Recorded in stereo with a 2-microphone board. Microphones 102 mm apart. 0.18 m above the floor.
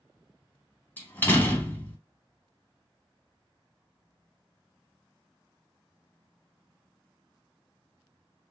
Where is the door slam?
20° left (ahead or behind), 0.7 m.